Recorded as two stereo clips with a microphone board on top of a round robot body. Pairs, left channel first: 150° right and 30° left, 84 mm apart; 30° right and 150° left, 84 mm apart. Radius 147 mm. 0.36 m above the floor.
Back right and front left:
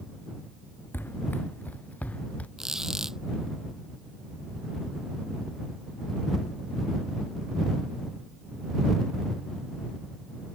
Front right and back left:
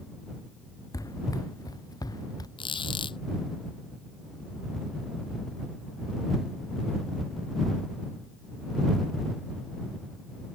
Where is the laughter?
I don't hear laughter.